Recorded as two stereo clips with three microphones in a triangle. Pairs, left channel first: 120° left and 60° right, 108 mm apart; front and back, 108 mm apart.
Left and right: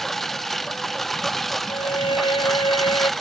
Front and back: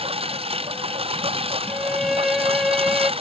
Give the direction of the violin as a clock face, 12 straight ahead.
9 o'clock.